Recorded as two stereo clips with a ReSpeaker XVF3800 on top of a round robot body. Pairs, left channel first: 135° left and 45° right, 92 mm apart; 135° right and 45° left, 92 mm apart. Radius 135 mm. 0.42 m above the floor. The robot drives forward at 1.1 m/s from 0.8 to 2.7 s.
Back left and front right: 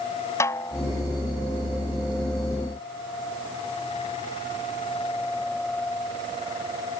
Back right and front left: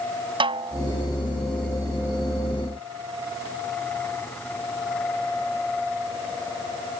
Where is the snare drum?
75° left.